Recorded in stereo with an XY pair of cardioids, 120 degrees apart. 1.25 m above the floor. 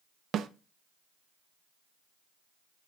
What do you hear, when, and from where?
0.3 s a snare drum: 55° right, 0.7 m